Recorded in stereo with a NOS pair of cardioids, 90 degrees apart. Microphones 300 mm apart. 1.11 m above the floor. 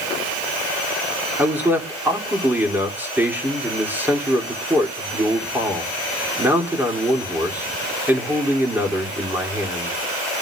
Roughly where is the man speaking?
Ahead.